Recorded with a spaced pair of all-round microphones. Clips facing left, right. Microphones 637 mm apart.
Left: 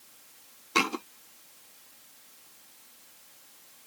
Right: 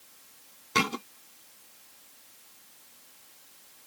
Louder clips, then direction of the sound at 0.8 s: Even; 45° right (ahead or behind).